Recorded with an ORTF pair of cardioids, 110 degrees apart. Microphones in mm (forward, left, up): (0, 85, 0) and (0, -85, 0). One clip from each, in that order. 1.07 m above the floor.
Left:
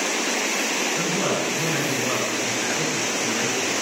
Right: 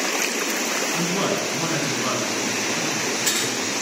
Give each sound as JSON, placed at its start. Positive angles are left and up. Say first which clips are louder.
{"t": 0.9, "sound": "a man speaking", "louder": "even", "azimuth_deg": -60, "distance_m": 8.5}